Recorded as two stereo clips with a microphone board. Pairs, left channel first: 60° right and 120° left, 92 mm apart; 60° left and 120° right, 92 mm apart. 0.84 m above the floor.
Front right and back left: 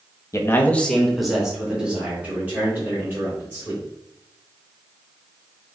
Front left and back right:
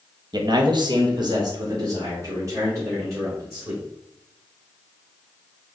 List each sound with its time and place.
0.3 s a man speaking: 105° right, 0.8 m; by 3.8 s 175° right, 3 m